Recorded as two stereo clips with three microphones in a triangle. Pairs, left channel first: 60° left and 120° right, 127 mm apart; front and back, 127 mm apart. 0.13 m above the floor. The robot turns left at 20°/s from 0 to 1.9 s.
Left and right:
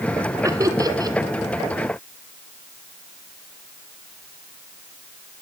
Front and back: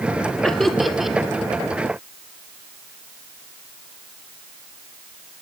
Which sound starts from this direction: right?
Laughter, at 0.4 s.